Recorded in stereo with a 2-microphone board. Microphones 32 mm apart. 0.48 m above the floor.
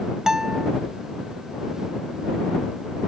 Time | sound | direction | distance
0.3 | a guitar | 20° right (ahead or behind) | ?